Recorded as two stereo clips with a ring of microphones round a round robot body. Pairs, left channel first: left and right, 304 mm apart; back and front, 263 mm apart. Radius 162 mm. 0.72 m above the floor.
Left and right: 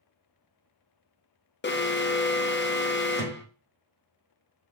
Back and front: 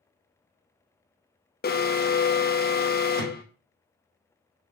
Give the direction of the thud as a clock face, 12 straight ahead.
12 o'clock.